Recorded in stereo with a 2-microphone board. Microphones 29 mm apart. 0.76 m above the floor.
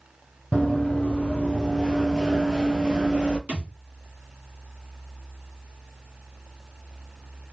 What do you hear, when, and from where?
0.5 s running footsteps: 50° left (ahead or behind), 1.3 m; by 3.4 s 35° right (ahead or behind), 0.9 m
3.5 s a thud: 50° right (ahead or behind), 1.5 m